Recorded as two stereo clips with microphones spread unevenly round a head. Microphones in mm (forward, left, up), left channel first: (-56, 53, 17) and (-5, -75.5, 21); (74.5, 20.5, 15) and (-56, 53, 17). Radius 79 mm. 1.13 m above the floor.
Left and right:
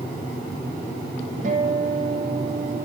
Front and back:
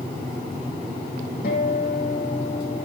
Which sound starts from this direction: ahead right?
A guitar, at 1.4 s.